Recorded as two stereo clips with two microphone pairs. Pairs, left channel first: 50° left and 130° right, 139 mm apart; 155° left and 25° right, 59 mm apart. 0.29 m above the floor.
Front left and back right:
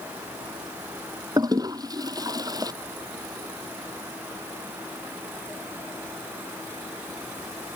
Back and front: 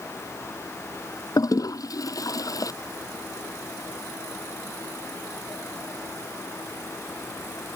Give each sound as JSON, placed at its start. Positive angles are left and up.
{"t": 1.4, "sound": "a toilet flushing", "azimuth_deg": 165}